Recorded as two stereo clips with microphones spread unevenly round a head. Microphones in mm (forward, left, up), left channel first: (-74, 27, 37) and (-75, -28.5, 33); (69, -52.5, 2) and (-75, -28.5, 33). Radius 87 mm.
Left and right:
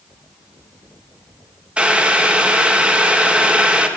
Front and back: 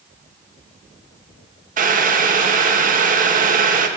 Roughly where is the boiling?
Behind right.